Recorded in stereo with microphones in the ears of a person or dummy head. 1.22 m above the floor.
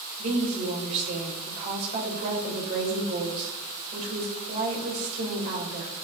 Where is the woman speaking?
50° right (ahead or behind), 6 m.